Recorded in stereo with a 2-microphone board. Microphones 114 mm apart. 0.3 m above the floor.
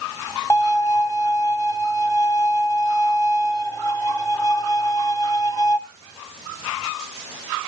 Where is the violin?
30° left (ahead or behind), 1.0 m.